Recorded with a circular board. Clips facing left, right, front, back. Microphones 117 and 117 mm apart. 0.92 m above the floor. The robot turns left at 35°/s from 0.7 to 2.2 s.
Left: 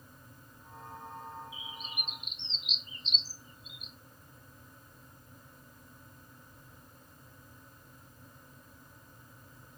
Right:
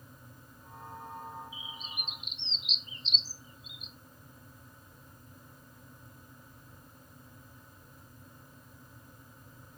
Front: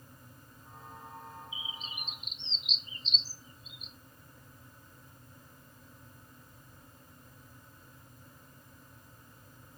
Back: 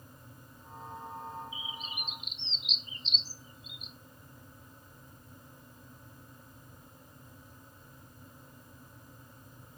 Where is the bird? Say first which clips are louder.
Left 1 dB, back 3 dB; 70° left, 0.8 m; by 3.9 s 50° left, 0.8 m.